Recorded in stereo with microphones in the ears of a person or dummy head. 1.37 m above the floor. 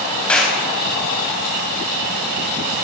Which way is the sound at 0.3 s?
10° left (ahead or behind).